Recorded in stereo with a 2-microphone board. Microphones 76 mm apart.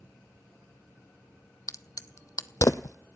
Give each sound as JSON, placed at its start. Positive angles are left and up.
{"t": 1.7, "sound": "a crack", "side_deg": 50, "distance_m": 0.6}